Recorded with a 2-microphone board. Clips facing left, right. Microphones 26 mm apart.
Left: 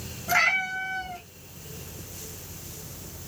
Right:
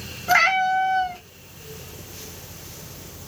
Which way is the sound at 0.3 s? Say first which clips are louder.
Right 5 dB; 35° right (ahead or behind).